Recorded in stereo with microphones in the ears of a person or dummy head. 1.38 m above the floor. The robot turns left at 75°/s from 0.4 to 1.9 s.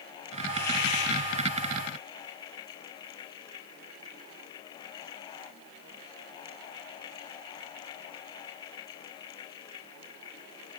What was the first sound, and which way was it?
A hiss, 170° left.